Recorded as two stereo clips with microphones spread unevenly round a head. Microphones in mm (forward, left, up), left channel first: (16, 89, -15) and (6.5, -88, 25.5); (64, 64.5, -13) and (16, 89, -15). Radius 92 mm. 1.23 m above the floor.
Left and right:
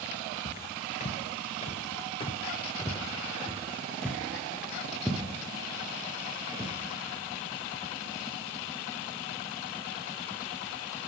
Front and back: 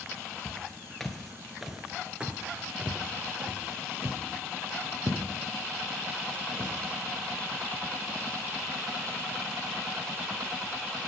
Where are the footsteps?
40° left, 1.5 m; by 6.7 s 165° right, 3 m.